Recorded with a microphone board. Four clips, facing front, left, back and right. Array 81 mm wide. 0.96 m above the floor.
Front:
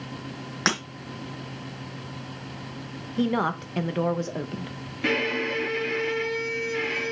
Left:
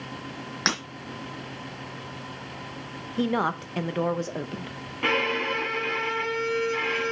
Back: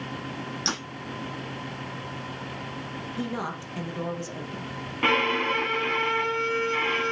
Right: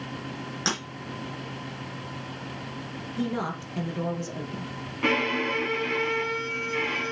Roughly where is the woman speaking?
Ahead left.